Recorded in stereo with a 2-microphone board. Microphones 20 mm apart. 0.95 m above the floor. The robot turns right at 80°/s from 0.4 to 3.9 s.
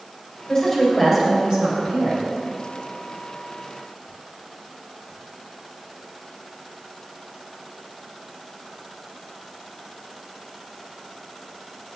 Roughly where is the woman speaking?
Behind left.